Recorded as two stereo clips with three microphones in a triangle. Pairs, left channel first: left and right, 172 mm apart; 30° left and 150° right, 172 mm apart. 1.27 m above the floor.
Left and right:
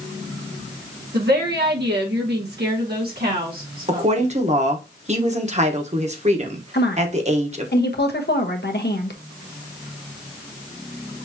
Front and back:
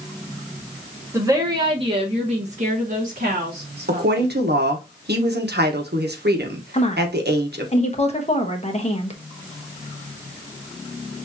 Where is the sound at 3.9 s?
140° right, 1.2 m.